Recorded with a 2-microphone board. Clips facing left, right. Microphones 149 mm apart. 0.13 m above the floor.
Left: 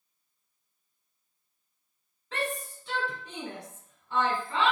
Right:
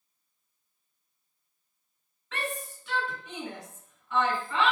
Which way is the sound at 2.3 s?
35° left (ahead or behind).